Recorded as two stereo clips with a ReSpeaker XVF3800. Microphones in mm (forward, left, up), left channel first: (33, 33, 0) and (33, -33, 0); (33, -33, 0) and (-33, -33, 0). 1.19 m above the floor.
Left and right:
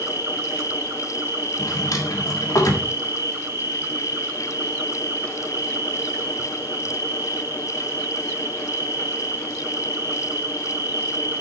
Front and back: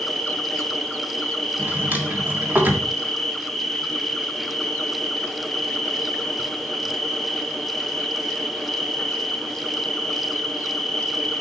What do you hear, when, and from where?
0.0 s an insect: 85° right, 0.9 m
1.6 s a drawer: 120° left, 1.6 m